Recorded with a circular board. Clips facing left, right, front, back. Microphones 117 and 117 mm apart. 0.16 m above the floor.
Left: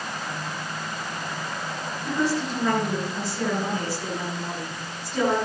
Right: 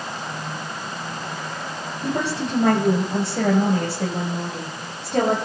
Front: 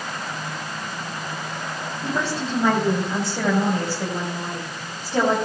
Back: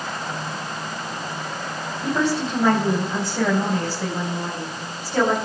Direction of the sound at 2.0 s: 90° right.